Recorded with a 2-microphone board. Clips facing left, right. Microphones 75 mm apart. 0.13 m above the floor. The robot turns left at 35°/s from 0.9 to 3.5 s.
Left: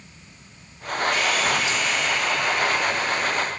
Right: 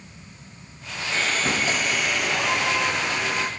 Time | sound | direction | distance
1.1 | sawing | 25° right | 2.5 m